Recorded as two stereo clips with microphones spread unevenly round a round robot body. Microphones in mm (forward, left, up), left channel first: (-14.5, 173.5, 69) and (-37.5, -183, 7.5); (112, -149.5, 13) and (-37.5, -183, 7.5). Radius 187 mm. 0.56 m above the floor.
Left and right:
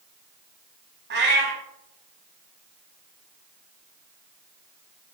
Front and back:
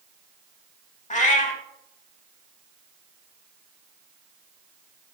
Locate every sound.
1.1 s a cat meowing: 30° right, 0.8 m